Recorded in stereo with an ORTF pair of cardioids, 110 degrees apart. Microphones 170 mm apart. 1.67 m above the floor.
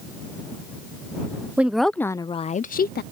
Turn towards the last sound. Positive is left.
turn(degrees=75)